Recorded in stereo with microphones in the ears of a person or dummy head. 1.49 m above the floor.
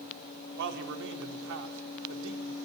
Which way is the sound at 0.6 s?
65° right (ahead or behind).